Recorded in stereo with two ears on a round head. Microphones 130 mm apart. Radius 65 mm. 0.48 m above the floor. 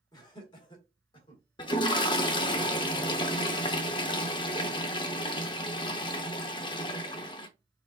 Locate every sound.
0.1 s laughter: 30° left (ahead or behind), 1.6 m; by 1.4 s 40° left (ahead or behind), 2 m
1.6 s a toilet flushing: 35° left (ahead or behind), 0.6 m